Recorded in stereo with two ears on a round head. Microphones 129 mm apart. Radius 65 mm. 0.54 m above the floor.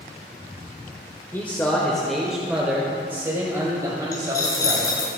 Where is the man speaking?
15° left (ahead or behind), 1.4 m; by 5.1 s 30° right (ahead or behind), 2.5 m.